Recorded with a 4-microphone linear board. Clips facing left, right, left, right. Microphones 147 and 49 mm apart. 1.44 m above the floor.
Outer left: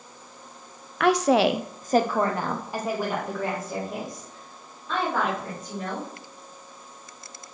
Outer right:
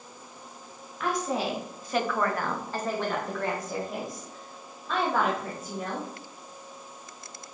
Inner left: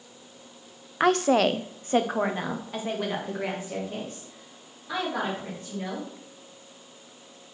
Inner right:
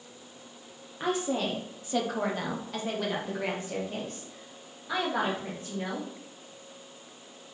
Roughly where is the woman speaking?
Left.